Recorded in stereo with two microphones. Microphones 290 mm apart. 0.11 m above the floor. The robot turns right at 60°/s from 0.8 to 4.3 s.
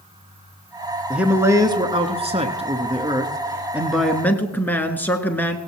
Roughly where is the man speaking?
Centre.